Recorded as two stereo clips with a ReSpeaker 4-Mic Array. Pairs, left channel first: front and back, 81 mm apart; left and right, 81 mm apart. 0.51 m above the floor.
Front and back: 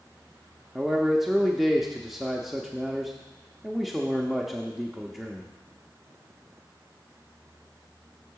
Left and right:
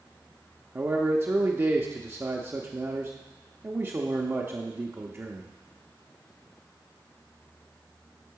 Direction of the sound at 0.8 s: 95° right.